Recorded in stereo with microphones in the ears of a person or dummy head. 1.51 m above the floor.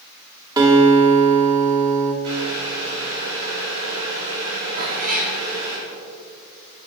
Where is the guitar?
25° right (ahead or behind), 2.5 m.